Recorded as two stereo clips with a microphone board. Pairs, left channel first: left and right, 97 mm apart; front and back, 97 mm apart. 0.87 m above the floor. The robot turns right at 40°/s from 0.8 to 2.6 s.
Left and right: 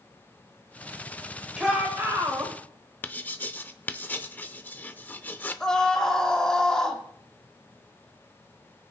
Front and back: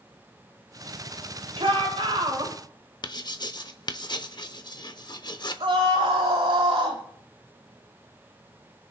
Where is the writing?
25° left, 0.7 m.